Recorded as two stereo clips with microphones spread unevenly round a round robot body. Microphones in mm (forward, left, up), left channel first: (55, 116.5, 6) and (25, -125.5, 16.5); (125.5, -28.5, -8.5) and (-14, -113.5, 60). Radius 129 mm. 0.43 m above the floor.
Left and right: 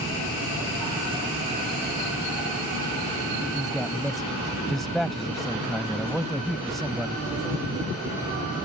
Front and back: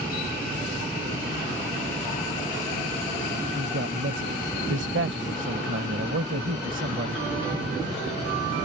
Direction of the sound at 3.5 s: 175° left.